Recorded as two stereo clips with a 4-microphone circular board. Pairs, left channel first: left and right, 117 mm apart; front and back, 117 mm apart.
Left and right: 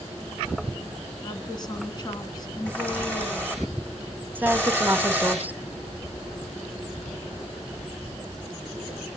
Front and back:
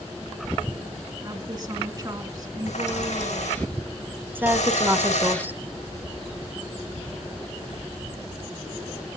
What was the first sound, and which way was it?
A woman speaking, 135° left.